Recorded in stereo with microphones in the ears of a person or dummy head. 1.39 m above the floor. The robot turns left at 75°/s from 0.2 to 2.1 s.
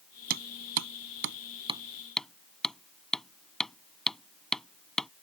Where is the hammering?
55° right (ahead or behind); by 5.1 s 10° left (ahead or behind).